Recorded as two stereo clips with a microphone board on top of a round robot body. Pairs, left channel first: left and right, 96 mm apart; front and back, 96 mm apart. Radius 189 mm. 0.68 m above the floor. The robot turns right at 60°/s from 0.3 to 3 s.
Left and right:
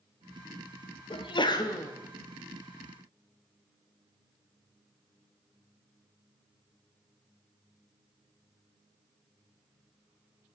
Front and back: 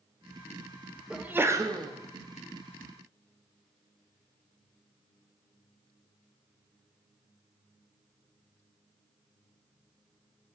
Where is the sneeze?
100° left, 1.8 m; by 1.9 s 145° left, 1.8 m.